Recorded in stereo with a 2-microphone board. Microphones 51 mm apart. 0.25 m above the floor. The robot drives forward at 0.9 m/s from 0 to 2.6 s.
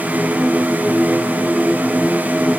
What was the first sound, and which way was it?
Only background noise.